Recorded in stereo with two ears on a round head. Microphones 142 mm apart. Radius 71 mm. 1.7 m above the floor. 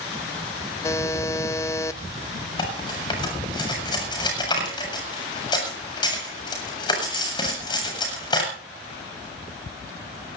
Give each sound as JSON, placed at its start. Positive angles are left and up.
{"t": 0.8, "sound": "a buzzer", "side_deg": 20, "distance_m": 0.5}
{"t": 2.6, "sound": "cutlery clinking", "side_deg": 30, "distance_m": 7.5}